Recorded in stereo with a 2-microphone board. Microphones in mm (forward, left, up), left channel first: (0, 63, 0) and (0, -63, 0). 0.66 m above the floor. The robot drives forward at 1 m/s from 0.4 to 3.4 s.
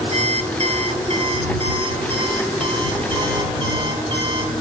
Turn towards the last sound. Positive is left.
turn(degrees=-35)  # may be behind; listen again after turning